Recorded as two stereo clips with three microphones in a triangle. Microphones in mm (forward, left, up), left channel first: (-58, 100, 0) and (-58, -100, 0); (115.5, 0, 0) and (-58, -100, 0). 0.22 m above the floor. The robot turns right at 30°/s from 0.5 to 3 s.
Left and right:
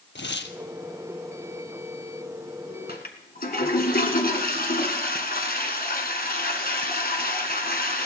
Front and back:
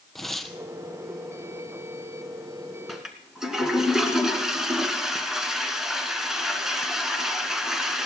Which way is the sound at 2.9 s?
120° left.